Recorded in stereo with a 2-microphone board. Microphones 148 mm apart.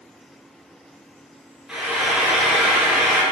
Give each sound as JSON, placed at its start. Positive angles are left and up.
{"t": 1.7, "sound": "frying", "side_deg": 0, "distance_m": 2.0}